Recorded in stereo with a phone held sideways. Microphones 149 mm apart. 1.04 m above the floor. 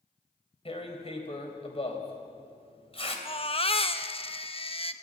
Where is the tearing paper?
35° left (ahead or behind), 3 m.